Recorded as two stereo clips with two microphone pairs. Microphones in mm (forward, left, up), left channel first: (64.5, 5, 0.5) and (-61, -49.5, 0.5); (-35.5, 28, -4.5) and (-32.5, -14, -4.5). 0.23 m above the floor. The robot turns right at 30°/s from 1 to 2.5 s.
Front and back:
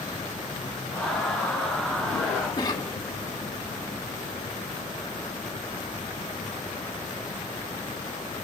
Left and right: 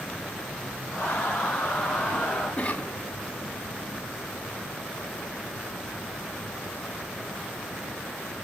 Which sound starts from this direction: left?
A cough, at 2.6 s.